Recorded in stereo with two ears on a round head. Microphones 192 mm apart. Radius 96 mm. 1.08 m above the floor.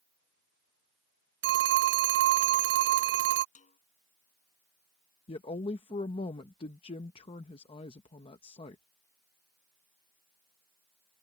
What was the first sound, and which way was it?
A phone ringing, 55° right (ahead or behind).